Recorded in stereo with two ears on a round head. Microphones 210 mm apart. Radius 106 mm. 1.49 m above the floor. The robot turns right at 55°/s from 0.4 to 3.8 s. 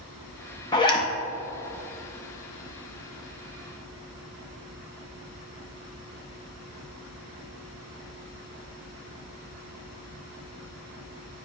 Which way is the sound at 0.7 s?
20° left (ahead or behind).